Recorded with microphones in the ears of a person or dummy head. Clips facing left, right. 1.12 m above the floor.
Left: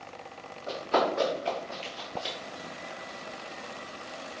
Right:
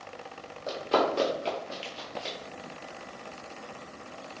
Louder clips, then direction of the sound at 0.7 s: Right 1 dB; 45° right (ahead or behind).